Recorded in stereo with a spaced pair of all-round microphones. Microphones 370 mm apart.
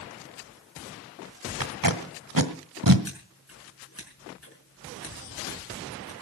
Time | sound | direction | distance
1.6 | tape being pulled | 60° right (ahead or behind) | 1.4 m
3.0 | scissors | 40° left (ahead or behind) | 5.5 m